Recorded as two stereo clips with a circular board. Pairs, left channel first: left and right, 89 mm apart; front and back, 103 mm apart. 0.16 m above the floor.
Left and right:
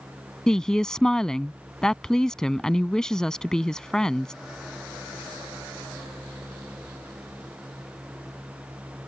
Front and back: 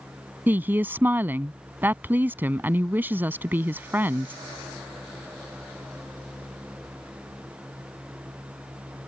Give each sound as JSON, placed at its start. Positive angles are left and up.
{"t": 0.5, "sound": "a woman speaking", "azimuth_deg": 160}